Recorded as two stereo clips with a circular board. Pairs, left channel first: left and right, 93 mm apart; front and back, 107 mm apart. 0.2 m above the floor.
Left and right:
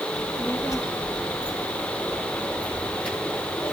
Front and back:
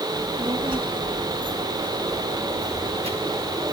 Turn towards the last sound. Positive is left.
turn(degrees=-175)